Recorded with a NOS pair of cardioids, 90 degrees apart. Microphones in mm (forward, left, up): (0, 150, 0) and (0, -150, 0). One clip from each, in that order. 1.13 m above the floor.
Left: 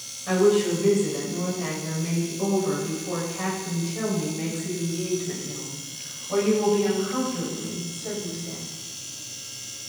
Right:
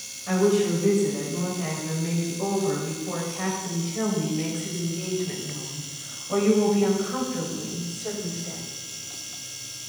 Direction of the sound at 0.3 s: 15° left.